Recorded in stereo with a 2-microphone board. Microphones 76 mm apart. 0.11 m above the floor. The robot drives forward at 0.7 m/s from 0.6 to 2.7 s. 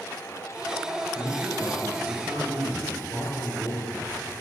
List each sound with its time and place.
1.1 s a man speaking: 25° right (ahead or behind), 1.3 m